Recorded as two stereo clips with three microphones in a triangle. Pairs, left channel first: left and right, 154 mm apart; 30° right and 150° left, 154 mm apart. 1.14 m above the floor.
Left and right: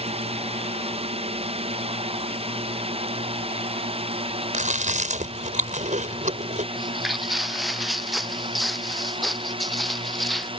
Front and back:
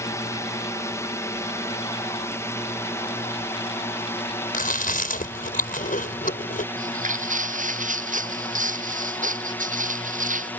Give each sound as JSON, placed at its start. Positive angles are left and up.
{"t": 0.0, "sound": "a drone", "azimuth_deg": -90}
{"t": 4.5, "sound": "chewing", "azimuth_deg": -55}
{"t": 6.8, "sound": "footsteps", "azimuth_deg": 180}